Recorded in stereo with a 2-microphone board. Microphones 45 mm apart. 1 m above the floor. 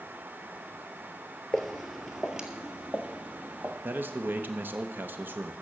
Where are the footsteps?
10° left (ahead or behind), 1.2 m; by 3.7 s 35° right (ahead or behind), 1.9 m.